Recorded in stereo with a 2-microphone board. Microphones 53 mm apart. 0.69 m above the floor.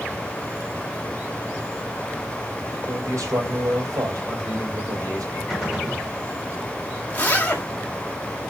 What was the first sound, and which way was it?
A man speaking, 75° right (ahead or behind).